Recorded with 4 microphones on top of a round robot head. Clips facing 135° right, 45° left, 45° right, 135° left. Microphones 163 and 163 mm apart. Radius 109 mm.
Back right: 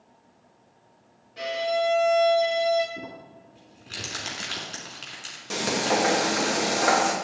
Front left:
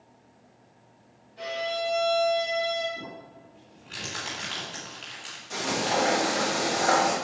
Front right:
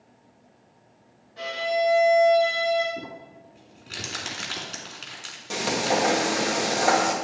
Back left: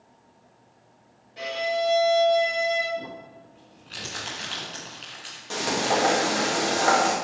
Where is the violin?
150° right, 2 m.